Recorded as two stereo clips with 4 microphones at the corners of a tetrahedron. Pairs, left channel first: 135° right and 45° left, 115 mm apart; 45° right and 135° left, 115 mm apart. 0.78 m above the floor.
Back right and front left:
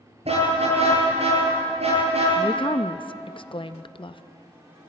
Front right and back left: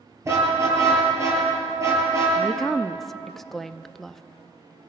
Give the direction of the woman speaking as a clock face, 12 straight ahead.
4 o'clock.